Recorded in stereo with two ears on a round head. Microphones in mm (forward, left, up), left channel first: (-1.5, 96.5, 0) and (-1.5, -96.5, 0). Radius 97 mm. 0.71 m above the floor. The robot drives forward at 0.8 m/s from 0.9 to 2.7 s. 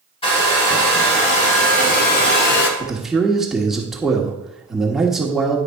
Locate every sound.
0.2 s a hair dryer: 30° left (ahead or behind), 2 m; by 2.7 s 60° left (ahead or behind), 1.2 m
2.8 s a man speaking: centre (ahead or behind), 1.3 m